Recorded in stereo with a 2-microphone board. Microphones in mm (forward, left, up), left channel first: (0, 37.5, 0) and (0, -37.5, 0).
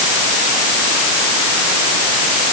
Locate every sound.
Only background noise.